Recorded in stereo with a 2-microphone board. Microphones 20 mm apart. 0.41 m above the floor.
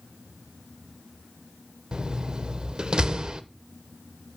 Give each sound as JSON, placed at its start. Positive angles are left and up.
{"t": 1.9, "sound": "a door slam", "side_deg": -45, "distance_m": 0.7}